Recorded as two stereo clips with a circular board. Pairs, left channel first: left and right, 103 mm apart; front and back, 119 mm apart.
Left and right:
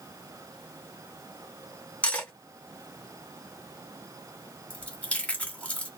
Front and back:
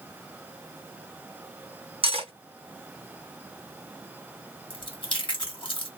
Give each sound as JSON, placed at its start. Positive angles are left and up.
{"t": 2.0, "sound": "cutlery clinking", "azimuth_deg": 165, "distance_m": 0.7}
{"t": 4.7, "sound": "chewing", "azimuth_deg": 15, "distance_m": 1.0}